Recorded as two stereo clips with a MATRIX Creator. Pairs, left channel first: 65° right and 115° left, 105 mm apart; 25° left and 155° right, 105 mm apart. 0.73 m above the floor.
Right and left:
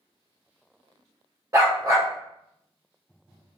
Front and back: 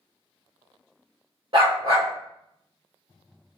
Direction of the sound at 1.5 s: 170° left.